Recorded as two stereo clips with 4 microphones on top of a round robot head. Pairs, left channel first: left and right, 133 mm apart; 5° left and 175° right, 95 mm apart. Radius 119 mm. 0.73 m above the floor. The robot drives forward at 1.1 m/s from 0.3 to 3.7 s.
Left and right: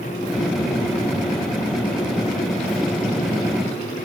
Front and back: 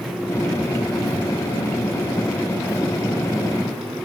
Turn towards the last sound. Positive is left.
No sound to turn to.